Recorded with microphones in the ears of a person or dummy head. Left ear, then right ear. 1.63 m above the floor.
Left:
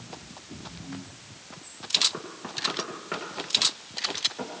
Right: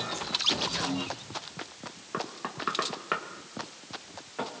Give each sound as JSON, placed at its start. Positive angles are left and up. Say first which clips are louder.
{"t": 2.1, "sound": "knocking", "louder": "right 1 dB", "side_deg": -45, "distance_m": 1.8}